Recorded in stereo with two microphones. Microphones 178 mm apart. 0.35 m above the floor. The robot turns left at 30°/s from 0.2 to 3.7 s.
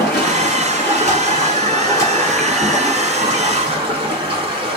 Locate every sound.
0.0 s running water: 75° left, 1.3 m; by 4.8 s 30° right, 1.3 m